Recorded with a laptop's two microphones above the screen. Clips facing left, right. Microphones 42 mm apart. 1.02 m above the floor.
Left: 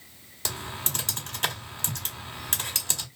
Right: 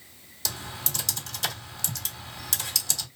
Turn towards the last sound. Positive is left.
turn(degrees=40)  # may be behind; listen again after turning